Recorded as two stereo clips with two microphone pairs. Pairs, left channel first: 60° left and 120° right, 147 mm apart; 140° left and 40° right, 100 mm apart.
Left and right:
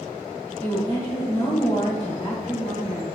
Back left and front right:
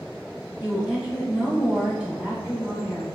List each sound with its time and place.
0.6 s a woman speaking: 45° left, 1.4 m